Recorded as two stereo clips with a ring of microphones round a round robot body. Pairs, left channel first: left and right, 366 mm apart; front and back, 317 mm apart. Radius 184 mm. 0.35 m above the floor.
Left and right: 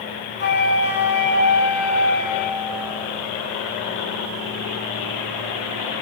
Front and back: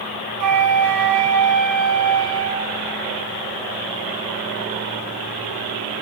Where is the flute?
150° left, 2.5 m.